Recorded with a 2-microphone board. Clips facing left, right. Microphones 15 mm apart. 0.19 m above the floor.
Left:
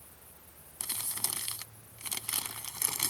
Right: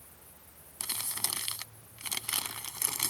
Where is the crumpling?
20° right (ahead or behind).